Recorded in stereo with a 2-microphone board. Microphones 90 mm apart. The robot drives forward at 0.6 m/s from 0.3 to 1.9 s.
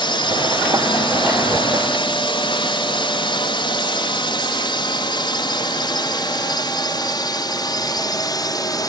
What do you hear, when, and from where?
0.0 s a drone: 65° left (ahead or behind); by 8.9 s 50° left (ahead or behind)